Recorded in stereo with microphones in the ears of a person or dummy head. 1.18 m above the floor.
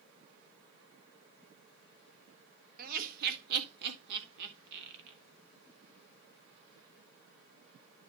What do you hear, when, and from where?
2.8 s laughter: 50° right (ahead or behind), 1.6 m; by 5.2 s 70° right (ahead or behind), 2.5 m